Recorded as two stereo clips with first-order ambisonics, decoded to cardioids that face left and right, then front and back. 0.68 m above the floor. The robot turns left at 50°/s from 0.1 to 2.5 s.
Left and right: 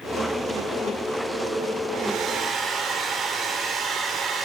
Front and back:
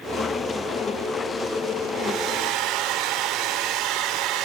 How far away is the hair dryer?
About 2.5 m.